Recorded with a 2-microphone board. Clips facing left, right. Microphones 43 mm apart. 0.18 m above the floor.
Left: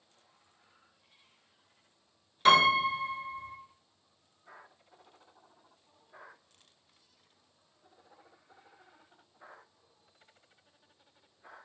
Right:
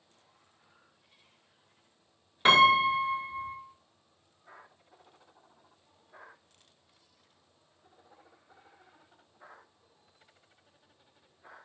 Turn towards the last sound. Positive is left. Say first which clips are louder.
# right 2 dB
turn(degrees=-30)  # may be behind; listen again after turning